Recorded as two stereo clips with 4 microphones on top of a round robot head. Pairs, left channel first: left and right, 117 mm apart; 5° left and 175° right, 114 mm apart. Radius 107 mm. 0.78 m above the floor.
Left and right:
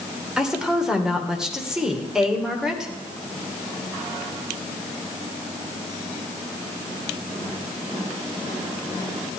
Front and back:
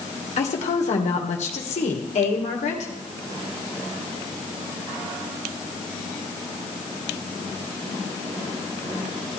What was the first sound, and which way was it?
A woman speaking, 5° right.